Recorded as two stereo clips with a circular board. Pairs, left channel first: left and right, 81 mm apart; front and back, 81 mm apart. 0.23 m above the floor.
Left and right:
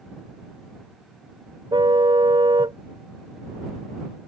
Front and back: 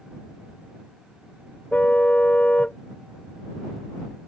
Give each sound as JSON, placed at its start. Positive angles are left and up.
{"t": 1.7, "sound": "a car horn", "azimuth_deg": -75}